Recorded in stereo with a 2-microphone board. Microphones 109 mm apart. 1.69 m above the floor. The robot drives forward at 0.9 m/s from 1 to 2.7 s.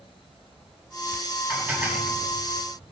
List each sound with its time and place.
1.5 s dishes clattering: 20° right (ahead or behind), 9.5 m